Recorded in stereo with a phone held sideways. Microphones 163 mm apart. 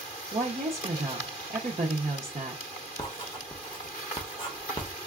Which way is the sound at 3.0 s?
30° left (ahead or behind).